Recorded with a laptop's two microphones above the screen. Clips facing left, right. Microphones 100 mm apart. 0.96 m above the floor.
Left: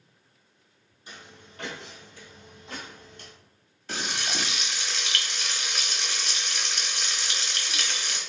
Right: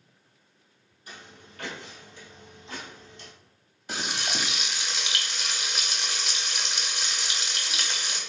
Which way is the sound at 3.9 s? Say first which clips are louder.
Even; 15° right (ahead or behind).